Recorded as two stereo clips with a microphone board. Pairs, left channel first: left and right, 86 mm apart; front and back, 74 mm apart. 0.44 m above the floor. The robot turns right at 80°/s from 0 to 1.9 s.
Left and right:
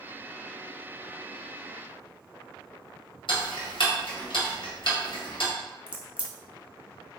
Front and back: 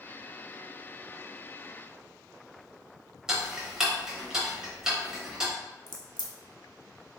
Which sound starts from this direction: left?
Ticking, at 3.3 s.